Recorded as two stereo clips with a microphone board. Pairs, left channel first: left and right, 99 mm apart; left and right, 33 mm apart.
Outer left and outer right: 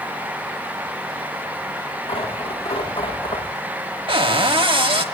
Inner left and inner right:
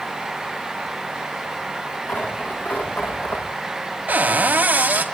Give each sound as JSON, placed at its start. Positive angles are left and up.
{"t": 2.1, "sound": "tearing paper", "side_deg": 85, "distance_m": 8.0}
{"t": 4.1, "sound": "a cupboard door", "side_deg": -65, "distance_m": 1.7}